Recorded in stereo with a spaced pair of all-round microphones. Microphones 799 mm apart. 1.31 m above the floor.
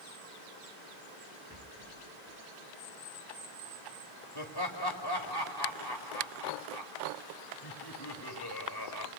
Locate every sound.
1.5 s a rattle: 25° right (ahead or behind), 8.5 m
4.3 s laughter: 25° left (ahead or behind), 2.5 m